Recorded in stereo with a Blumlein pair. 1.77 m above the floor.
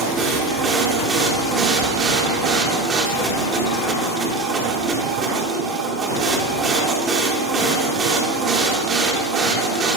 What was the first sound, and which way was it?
A machine running, 25° right.